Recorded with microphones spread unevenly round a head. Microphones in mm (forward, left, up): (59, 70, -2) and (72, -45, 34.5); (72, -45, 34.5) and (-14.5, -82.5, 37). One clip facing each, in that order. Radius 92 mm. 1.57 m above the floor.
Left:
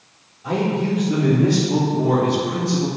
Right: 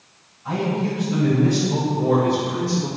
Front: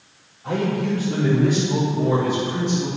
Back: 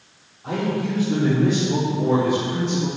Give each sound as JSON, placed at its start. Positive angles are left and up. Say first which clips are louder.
{"t": 0.4, "sound": "a man speaking", "louder": "left 2 dB, front 1 dB", "azimuth_deg": 125, "distance_m": 4.5}